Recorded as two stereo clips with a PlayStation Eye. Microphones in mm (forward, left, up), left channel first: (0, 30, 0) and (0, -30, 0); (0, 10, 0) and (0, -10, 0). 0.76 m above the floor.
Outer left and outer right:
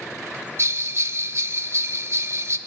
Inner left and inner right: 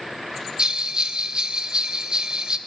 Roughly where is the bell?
Right.